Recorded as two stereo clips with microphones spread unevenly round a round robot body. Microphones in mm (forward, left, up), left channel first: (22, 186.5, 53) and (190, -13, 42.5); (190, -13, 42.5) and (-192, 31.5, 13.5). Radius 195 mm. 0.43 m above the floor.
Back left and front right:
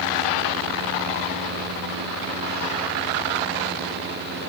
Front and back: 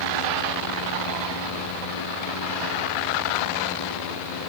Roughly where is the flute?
I don't hear a flute.